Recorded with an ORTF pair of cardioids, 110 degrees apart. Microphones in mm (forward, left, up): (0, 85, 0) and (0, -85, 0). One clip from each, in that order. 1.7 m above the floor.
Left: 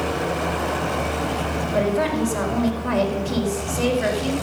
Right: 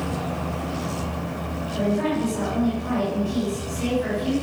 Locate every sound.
1.7 s a woman speaking: 55° left, 4.5 m